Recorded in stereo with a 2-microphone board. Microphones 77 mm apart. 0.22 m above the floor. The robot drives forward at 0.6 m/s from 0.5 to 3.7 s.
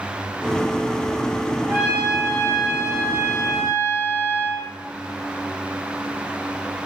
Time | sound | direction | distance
1.7 | a trumpet | 15° right (ahead or behind) | 3 m